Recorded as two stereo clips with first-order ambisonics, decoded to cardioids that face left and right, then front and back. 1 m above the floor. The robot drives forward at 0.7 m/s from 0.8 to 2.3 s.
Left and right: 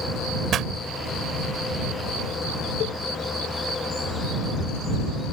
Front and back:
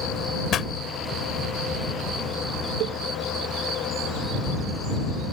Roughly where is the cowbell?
Behind left.